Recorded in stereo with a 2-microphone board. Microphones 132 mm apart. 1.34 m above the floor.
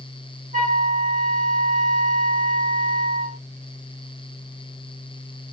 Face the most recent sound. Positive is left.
turn(degrees=-65)  # may be behind; listen again after turning